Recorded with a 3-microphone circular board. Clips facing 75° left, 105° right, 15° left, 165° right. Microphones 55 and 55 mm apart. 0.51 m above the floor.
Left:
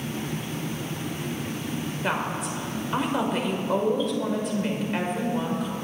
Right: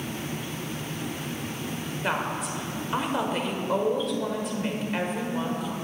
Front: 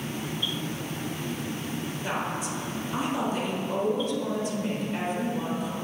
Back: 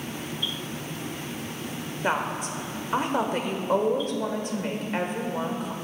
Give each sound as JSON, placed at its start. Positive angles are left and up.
{"t": 2.0, "sound": "a woman speaking", "azimuth_deg": 165, "distance_m": 1.4}